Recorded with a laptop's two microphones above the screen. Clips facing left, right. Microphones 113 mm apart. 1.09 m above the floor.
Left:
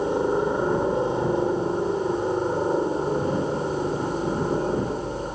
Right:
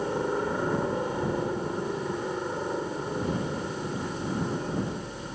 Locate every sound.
0.0 s a helicopter: 20° left (ahead or behind); by 5.3 s 40° left (ahead or behind)